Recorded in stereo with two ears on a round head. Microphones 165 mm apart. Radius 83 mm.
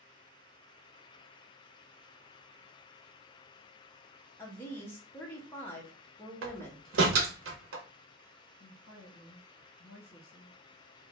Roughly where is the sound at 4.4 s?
Centre.